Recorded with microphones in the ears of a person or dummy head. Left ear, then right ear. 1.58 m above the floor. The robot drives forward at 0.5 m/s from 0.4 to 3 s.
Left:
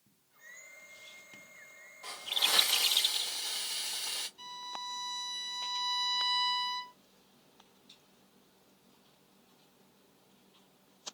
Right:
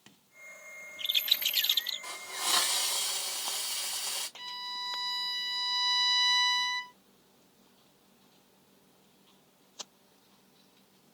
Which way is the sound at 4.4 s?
10° right (ahead or behind).